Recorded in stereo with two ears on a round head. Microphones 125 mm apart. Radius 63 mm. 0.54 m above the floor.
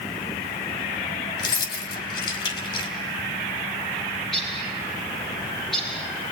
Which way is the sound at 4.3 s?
5° left (ahead or behind).